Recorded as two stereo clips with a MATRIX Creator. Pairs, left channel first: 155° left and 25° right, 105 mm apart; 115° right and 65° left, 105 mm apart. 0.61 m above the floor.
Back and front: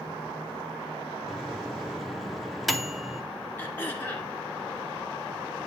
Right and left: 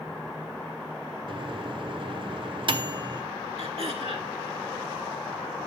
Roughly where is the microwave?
Left.